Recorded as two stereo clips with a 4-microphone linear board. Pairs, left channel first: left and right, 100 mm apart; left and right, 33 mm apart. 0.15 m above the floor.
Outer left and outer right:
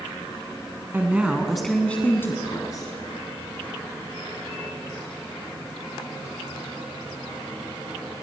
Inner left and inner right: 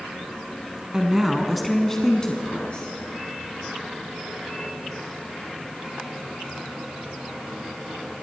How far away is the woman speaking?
About 1.1 m.